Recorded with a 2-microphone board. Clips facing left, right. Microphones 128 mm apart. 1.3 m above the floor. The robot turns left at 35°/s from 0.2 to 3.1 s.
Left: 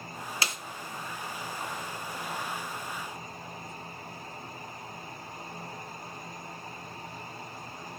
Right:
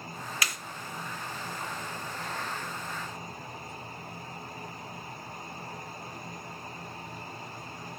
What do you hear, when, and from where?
0.4 s a snare drum: 30° left (ahead or behind), 0.7 m; by 0.6 s 25° left (ahead or behind), 0.7 m